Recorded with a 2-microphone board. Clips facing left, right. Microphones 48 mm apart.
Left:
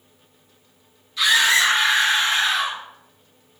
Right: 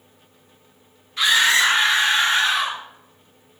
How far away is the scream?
About 1.4 m.